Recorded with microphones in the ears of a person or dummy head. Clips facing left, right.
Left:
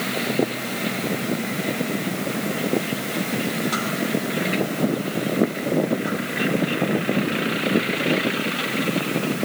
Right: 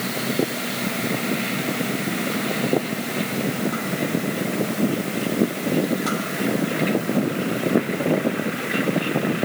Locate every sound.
Only background noise.